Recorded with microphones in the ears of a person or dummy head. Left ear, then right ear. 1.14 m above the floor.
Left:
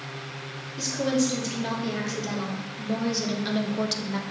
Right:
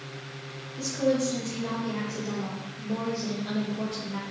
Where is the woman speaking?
45° left (ahead or behind), 3 m; by 4.2 s 80° left, 1.0 m.